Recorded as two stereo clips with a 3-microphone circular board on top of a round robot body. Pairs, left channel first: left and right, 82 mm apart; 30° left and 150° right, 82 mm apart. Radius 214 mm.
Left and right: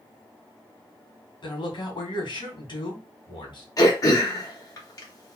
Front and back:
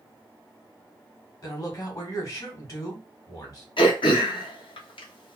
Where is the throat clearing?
40° left, 1.6 m.